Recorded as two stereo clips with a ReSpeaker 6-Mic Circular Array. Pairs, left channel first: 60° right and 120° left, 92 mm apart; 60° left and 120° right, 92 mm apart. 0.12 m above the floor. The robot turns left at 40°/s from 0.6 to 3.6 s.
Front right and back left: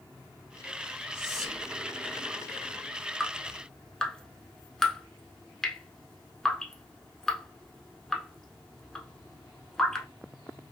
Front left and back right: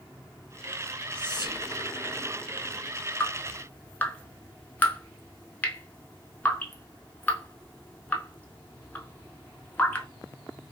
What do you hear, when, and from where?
1.1 s whispering: 15° right, 1.6 m; by 1.7 s 35° right, 1.6 m
3.2 s dripping: 35° left, 0.6 m; by 10.1 s 15° left, 0.6 m